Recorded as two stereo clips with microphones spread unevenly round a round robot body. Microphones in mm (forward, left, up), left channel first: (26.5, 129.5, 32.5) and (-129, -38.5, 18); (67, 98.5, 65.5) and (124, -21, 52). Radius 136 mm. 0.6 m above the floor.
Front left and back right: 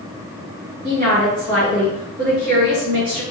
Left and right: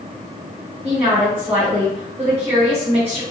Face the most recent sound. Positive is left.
turn(degrees=-135)